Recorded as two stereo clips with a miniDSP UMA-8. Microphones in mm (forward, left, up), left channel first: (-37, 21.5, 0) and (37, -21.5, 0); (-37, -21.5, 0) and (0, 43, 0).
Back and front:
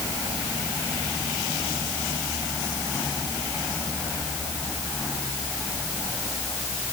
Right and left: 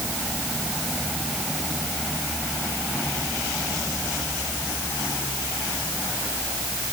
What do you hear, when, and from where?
Only background noise.